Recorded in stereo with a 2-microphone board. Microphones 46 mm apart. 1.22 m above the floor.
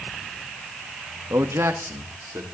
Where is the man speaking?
80° right, 1.8 m; by 2.5 s 65° right (ahead or behind), 3.5 m.